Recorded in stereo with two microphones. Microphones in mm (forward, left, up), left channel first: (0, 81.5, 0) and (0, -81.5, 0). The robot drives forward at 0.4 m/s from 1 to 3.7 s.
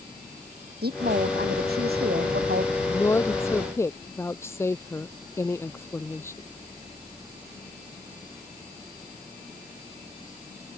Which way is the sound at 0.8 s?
80° right.